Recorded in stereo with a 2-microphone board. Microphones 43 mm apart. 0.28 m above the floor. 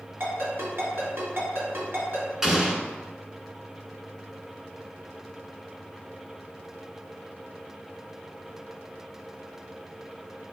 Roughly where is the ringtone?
Right.